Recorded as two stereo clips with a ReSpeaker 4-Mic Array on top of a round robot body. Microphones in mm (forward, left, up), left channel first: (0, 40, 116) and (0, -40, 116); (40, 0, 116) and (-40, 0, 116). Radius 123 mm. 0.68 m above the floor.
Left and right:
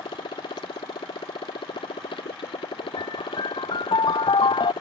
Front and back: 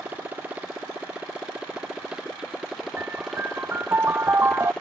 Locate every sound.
0.0 s a motorcycle: 110° left; by 4.8 s 80° left
3.0 s a piano: 115° left